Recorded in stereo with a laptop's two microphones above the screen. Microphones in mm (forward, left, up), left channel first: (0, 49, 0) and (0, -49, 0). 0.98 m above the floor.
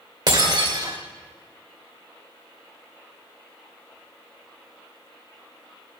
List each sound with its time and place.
0.3 s breaking glass: 50° right (ahead or behind), 1.9 m